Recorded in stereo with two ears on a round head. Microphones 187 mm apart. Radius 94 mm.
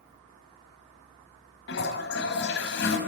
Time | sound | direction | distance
1.7 | a toilet flushing | 55° left (ahead or behind) | 5.5 m